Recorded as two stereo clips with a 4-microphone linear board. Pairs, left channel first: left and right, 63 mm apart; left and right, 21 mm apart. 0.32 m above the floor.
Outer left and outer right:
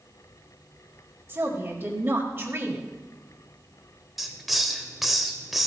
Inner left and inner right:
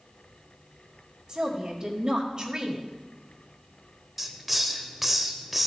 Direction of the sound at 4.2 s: Centre (ahead or behind).